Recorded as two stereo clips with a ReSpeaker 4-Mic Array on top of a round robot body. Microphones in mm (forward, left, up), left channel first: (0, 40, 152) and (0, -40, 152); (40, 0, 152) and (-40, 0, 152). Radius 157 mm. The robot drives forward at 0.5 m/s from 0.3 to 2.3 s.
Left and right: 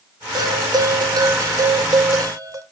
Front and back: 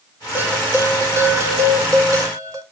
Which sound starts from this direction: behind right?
A bell, at 0.3 s.